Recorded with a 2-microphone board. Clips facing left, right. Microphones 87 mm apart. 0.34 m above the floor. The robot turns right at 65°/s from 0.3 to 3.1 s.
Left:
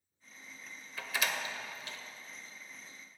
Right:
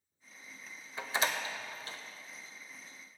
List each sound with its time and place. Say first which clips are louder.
1.0 s a door slam: right 2 dB; 20° right (ahead or behind), 0.6 m; by 2.0 s 35° right (ahead or behind), 0.6 m